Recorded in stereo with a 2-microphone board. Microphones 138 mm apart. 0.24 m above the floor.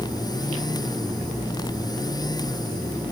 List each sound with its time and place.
Only background noise.